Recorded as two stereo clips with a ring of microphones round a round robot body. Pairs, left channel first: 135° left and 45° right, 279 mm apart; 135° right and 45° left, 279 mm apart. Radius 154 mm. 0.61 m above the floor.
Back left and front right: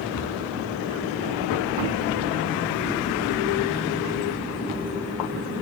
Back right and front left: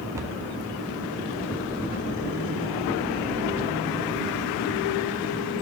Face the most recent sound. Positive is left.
turn(degrees=125)